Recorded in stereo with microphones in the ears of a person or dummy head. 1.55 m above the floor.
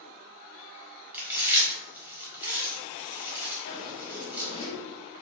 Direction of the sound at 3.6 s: 70° left (ahead or behind).